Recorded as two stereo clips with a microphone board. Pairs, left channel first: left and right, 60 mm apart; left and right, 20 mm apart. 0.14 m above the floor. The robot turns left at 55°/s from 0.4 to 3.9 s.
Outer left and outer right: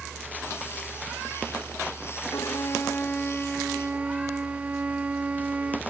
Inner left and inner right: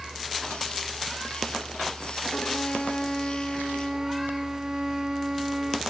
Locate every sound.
2.3 s a violin: 65° left; by 5.8 s 25° right